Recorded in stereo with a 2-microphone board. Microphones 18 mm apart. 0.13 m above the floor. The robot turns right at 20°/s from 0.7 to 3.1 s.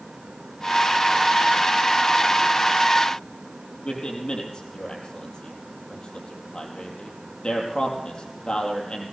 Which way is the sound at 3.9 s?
55° left (ahead or behind).